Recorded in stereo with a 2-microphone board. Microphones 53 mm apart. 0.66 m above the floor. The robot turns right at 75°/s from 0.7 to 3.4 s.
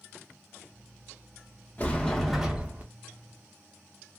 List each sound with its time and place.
1.8 s a sliding door: 140° left, 0.7 m; by 2.8 s 140° right, 0.7 m